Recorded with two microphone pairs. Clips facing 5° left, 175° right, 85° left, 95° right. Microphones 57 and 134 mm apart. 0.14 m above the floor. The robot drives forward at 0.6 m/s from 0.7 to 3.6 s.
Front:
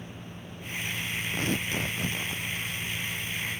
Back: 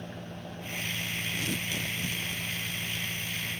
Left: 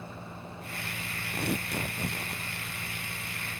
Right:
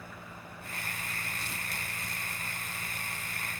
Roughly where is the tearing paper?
Ahead left.